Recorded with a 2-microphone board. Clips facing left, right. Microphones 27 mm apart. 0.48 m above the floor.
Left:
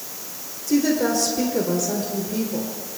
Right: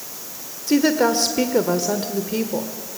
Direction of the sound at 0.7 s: 50° right (ahead or behind).